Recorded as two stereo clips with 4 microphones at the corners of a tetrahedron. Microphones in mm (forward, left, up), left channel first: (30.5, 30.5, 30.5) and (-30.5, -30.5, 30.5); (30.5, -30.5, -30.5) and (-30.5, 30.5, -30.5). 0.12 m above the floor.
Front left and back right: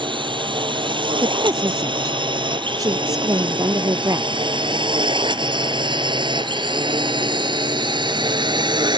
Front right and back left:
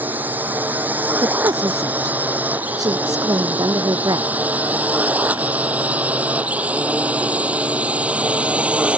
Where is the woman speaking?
175° left.